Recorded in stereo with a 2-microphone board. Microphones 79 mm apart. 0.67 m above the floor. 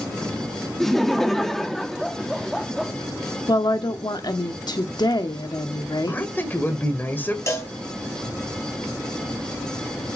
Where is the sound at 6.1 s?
20° left (ahead or behind), 2.5 m.